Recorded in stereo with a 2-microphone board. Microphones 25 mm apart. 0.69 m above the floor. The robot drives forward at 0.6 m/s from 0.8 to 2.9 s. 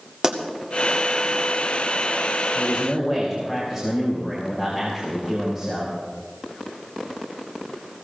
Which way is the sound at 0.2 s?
25° right (ahead or behind).